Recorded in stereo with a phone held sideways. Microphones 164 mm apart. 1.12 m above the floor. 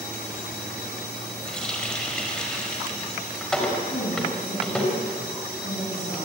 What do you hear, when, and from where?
1.5 s a running tap: 5° left (ahead or behind), 4.5 m
3.9 s a woman speaking: 65° left (ahead or behind), 9 m